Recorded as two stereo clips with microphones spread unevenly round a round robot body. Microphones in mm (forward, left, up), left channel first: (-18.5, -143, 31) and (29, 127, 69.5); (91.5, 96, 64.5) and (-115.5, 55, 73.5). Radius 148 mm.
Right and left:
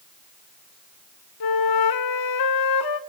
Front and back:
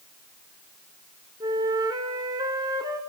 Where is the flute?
95° right, 0.8 m.